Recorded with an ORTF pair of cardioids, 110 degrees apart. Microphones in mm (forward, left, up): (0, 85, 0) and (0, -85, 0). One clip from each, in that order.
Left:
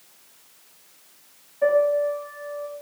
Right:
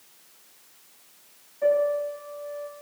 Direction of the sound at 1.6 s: 30° left.